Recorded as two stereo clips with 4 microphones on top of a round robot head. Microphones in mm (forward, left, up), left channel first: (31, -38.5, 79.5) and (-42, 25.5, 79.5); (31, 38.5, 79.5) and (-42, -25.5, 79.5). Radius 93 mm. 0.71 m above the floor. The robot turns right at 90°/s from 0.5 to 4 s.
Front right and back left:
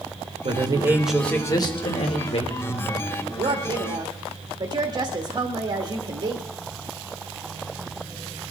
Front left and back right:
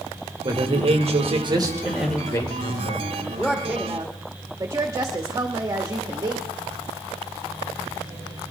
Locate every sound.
0.4 s a man speaking: 170° left, 2.5 m; by 3.1 s 45° left, 2.5 m
3.4 s a woman speaking: 110° left, 1.6 m; by 6.4 s 170° left, 1.6 m